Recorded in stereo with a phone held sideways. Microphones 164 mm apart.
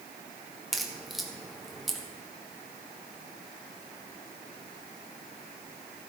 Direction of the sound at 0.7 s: Centre (ahead or behind).